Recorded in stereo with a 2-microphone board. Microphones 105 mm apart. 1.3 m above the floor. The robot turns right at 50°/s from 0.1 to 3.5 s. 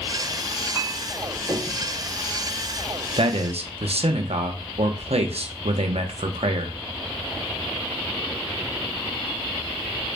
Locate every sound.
0.8 s a clink: 15° right (ahead or behind), 1.5 m; by 1.8 s 35° left (ahead or behind), 1.5 m
3.2 s a man speaking: 60° right (ahead or behind), 0.7 m; by 6.8 s 80° right, 0.7 m